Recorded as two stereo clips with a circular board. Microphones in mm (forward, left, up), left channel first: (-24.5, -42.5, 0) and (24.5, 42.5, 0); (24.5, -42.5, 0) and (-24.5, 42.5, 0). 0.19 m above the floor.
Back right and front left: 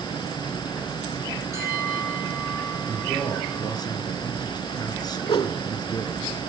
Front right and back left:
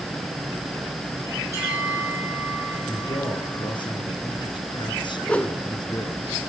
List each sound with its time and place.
1.5 s a bell: straight ahead, 6 m
2.9 s a man speaking: 80° right, 2.5 m
5.2 s a whoosh: 135° right, 0.6 m